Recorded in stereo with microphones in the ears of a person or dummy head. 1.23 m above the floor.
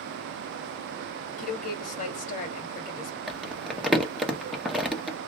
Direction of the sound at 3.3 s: Centre (ahead or behind).